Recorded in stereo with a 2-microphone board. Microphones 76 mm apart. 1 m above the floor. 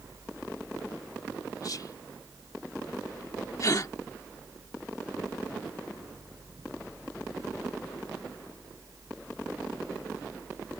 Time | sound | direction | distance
1.6 | whispering | 55° left (ahead or behind) | ?
3.6 | a gasp | 50° left (ahead or behind) | ?